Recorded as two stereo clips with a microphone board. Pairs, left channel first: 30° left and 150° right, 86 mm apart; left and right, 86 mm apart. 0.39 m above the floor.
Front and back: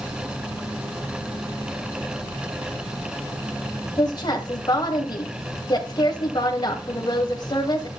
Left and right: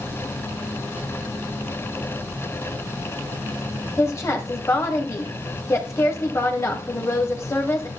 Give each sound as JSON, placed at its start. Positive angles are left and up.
{"t": 4.0, "sound": "a woman speaking", "azimuth_deg": 40, "distance_m": 2.5}